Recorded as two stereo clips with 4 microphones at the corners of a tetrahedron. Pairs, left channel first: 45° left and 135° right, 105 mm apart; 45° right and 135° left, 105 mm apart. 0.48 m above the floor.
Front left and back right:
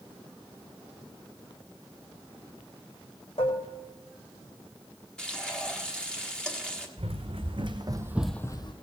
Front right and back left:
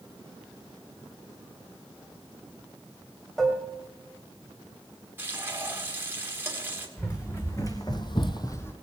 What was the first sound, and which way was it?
Dishes clattering, 40° left.